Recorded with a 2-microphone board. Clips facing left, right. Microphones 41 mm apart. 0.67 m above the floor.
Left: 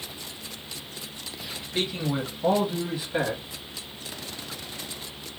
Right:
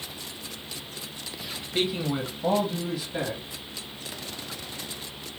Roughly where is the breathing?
No breathing in this recording.